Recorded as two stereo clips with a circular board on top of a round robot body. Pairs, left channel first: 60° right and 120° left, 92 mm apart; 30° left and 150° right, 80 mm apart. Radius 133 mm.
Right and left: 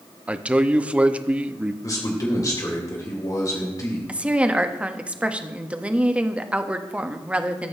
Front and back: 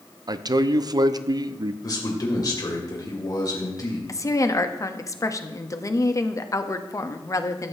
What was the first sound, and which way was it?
A man speaking, 165° right.